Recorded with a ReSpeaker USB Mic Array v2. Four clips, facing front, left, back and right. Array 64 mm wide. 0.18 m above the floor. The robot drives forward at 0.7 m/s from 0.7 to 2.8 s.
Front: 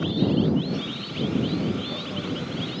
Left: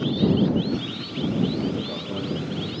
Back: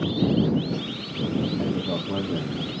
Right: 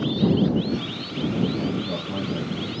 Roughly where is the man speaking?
Behind.